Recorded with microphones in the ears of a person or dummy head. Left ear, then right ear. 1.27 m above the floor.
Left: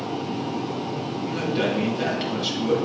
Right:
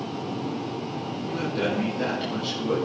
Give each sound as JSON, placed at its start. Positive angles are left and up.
{"t": 1.2, "sound": "a man speaking", "side_deg": 25, "distance_m": 8.5}